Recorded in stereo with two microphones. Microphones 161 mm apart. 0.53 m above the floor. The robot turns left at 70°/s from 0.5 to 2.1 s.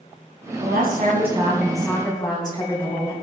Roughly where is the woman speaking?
Right.